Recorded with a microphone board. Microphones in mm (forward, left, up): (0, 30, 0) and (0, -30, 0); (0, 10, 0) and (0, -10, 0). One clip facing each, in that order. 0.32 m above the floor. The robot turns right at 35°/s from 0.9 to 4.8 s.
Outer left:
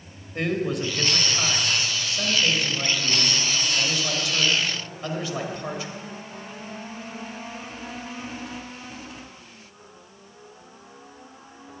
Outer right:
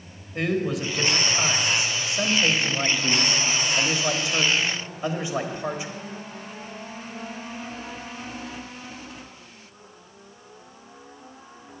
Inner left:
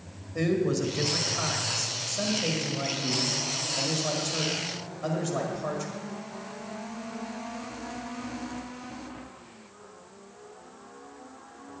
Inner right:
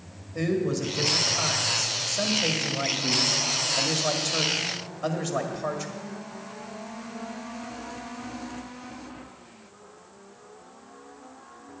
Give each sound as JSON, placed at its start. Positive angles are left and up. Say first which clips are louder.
{"t": 0.3, "sound": "a man speaking", "louder": "even, even", "azimuth_deg": 180, "distance_m": 1.5}